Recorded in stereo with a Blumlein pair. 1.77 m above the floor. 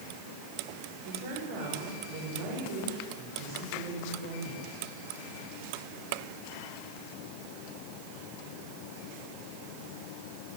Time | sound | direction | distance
1.1 | a woman speaking | 60° right | 5.5 m